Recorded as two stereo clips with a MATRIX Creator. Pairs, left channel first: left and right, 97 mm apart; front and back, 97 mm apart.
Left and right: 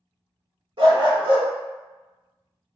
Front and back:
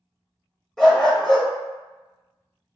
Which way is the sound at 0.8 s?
85° right.